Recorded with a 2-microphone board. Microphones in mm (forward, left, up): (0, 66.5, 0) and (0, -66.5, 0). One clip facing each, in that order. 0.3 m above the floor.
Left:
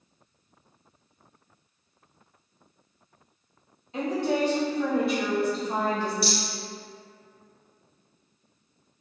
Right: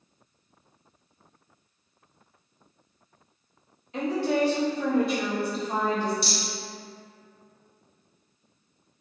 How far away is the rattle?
About 1.2 m.